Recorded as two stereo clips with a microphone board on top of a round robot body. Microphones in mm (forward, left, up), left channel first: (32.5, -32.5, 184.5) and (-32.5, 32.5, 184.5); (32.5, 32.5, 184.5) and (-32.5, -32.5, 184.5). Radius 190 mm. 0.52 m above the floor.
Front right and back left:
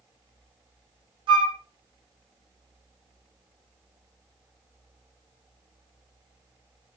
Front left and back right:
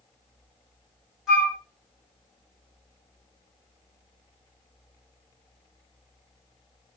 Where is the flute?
135° left, 2 m.